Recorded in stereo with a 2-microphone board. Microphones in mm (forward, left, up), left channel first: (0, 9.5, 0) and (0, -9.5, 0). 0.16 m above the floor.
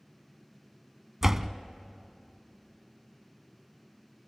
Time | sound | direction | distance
1.2 | a door slam | 20° right (ahead or behind) | 0.7 m